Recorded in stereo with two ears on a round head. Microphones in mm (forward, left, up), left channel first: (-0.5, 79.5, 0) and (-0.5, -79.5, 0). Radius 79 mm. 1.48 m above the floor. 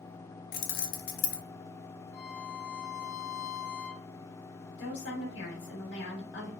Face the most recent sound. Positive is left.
turn(degrees=70)  # may be behind; listen again after turning